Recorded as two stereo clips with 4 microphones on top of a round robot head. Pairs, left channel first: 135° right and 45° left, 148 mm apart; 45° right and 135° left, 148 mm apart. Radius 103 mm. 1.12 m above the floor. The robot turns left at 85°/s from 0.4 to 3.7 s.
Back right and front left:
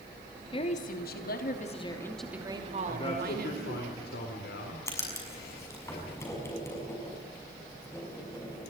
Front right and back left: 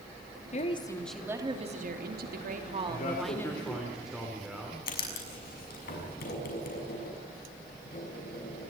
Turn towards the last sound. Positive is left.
turn(degrees=-65)